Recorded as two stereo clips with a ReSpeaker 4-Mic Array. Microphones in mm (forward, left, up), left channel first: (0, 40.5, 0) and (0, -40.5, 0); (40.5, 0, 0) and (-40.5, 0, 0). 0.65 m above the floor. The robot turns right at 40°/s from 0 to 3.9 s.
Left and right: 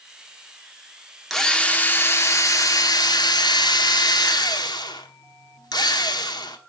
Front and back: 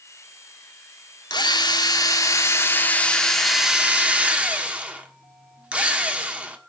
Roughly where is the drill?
Ahead.